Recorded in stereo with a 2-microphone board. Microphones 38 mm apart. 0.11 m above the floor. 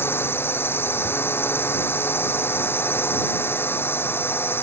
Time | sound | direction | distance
0.0 | a drone | 75° left (ahead or behind) | ?